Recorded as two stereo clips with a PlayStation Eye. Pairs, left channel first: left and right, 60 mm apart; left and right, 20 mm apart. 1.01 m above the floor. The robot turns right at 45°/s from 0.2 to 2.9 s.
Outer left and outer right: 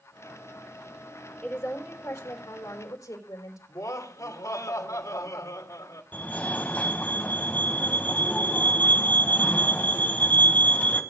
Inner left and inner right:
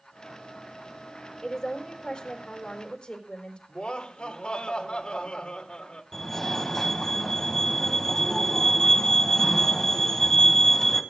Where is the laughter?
80° left, 3.5 m.